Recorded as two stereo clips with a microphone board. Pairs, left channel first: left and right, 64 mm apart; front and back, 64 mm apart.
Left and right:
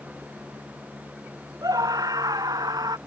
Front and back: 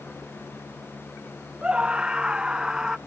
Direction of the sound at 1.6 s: 105° right.